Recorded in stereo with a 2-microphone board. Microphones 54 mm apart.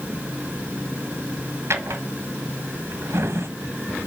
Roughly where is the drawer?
Right.